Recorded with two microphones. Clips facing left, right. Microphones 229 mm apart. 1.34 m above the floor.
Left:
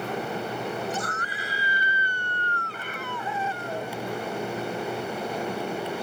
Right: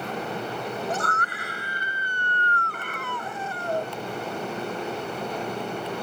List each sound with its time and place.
0.9 s a scream: 70° right (ahead or behind); by 3.9 s 55° right (ahead or behind)